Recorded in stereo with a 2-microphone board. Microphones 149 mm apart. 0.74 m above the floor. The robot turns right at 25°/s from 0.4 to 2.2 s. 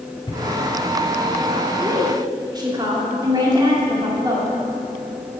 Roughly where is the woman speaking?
Centre.